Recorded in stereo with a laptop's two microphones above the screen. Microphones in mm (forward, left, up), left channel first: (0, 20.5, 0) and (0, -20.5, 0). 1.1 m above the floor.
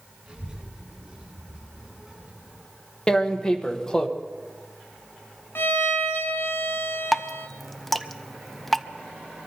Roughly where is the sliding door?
I don't hear a sliding door.